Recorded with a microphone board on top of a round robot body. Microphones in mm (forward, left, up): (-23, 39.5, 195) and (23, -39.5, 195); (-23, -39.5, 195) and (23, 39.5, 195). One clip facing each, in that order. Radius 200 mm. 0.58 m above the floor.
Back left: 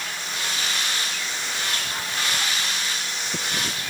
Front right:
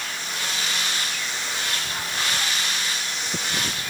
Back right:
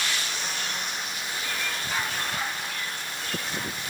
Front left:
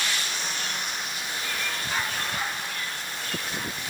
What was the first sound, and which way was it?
Only background noise.